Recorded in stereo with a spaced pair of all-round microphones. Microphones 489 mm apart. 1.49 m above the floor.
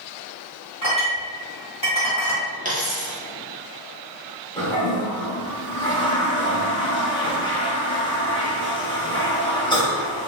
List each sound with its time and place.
0.8 s a clink: 40° left (ahead or behind), 1.7 m
2.6 s a dropped coin: 15° right (ahead or behind), 0.7 m
4.6 s a toilet flushing: 10° left (ahead or behind), 1.0 m